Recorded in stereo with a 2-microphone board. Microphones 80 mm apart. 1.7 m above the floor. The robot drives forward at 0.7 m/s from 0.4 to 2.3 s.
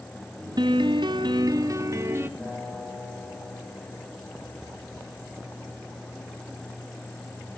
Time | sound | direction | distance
0.6 | a piano | 60° right (ahead or behind) | 0.7 m
2.4 | a guitar | 15° left (ahead or behind) | 9 m